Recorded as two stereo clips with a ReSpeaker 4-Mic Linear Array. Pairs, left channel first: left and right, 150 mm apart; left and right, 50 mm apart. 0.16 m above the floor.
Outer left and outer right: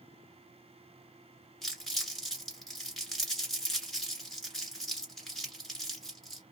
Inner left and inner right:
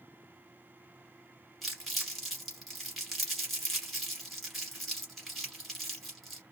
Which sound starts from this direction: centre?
Crumpling, at 1.6 s.